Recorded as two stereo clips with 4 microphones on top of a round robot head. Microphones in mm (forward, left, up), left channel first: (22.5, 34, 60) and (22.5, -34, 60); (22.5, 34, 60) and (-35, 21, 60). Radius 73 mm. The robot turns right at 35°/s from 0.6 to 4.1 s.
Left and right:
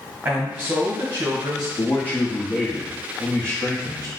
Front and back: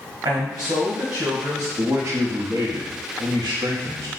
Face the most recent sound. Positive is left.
turn(degrees=-130)